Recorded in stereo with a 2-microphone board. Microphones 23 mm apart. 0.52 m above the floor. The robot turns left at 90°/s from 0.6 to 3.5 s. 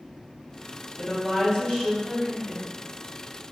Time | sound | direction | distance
1.0 | a woman speaking | 135° left | 1.0 m